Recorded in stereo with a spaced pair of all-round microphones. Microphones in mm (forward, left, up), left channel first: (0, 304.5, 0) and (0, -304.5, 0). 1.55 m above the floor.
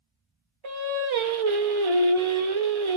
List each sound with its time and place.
0.6 s singing: 55° right (ahead or behind), 0.6 m